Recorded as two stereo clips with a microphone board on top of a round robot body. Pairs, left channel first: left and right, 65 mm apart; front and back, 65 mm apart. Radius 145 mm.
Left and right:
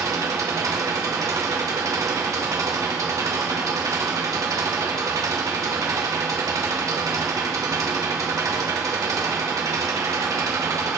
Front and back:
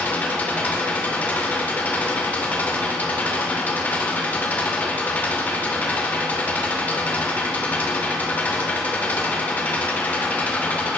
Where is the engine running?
65° right, 2 m.